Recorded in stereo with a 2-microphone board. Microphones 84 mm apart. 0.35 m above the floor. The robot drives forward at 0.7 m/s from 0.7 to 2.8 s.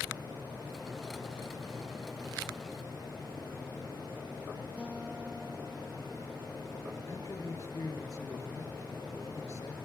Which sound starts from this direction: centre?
A guitar, at 4.8 s.